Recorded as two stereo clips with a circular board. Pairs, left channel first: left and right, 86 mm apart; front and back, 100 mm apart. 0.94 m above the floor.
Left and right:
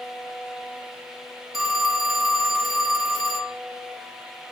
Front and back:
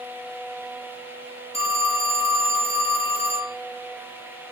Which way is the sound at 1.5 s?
Straight ahead.